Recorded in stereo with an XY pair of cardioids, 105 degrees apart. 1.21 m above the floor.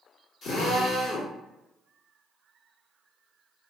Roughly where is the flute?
I don't hear a flute.